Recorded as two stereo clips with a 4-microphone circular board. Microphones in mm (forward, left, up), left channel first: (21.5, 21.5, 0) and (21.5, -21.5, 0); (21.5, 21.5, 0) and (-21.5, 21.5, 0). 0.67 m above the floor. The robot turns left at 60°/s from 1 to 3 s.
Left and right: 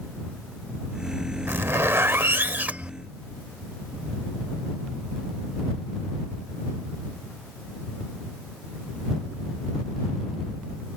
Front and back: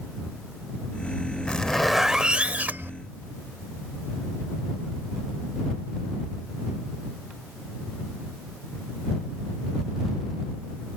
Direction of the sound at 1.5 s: 65° right.